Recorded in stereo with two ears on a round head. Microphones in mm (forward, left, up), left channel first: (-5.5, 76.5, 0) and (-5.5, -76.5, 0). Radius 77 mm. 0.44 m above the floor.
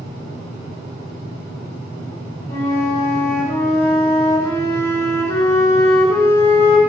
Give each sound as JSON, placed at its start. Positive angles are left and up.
{"t": 2.5, "sound": "a flute", "side_deg": 20, "distance_m": 1.3}